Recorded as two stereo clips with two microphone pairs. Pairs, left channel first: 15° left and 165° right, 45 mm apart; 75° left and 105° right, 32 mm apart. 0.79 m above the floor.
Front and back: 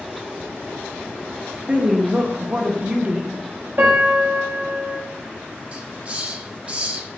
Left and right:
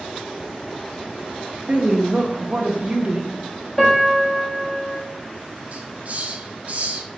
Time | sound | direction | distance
1.7 | a woman speaking | 120° right | 0.7 m
3.8 | a piano | 155° left | 1.8 m
5.7 | a hiss | 120° right | 0.5 m